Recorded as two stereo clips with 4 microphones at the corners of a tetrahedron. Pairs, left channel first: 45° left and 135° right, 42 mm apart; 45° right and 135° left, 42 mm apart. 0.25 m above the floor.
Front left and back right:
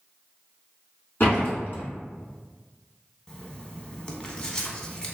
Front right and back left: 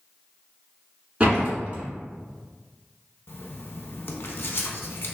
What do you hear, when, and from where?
1.2 s a door slam: 75° left, 1.7 m
3.3 s writing: 20° right, 0.6 m